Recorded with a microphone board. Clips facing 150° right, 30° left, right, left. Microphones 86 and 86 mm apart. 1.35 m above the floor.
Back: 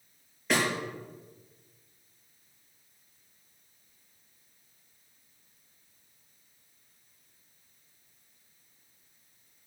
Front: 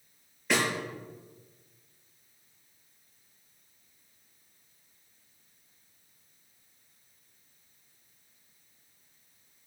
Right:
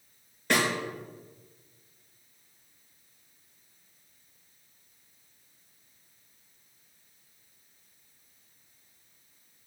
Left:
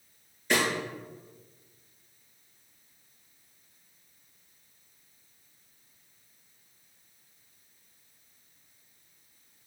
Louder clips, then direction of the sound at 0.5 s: Even, right 1 dB; 60° right.